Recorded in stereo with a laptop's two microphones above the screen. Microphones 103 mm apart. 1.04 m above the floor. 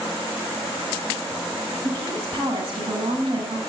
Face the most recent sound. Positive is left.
turn(degrees=-45)  # may be behind; listen again after turning